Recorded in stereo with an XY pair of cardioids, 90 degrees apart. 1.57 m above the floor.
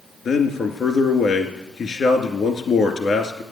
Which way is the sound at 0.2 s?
60° left.